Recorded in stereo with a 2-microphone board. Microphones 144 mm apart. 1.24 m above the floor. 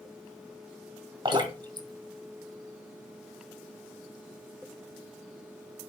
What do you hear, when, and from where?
1.2 s dripping: 30° right (ahead or behind), 1.5 m